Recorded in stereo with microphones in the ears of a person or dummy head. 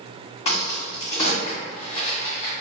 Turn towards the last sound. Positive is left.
turn(degrees=30)  # may be behind; listen again after turning